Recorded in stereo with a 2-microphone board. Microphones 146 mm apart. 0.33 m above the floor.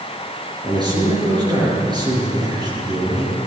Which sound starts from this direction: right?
A man speaking, at 0.6 s.